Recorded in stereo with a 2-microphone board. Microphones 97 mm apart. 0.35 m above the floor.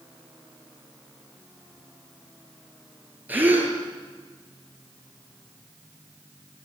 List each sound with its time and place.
3.3 s a gasp: 20° right (ahead or behind), 5.5 m